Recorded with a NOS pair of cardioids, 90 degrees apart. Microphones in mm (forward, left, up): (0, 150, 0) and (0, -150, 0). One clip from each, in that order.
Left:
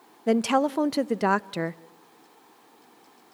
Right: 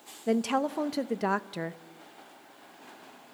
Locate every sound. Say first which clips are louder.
0.3 s a woman speaking: left 5 dB; 25° left, 0.6 m